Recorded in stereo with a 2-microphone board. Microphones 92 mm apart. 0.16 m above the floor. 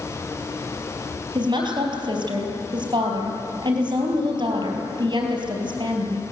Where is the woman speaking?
60° right (ahead or behind), 4 m.